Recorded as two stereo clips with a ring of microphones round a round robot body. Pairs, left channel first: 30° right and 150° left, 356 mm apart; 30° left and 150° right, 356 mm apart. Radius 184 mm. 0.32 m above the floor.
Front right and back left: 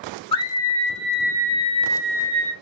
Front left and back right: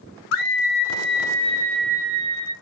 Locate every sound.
0.3 s a scream: 35° left, 1.6 m; by 2.5 s 155° right, 2.0 m